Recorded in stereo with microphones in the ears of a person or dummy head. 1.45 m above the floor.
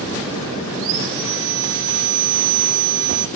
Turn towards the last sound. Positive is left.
turn(degrees=-60)  # may be behind; listen again after turning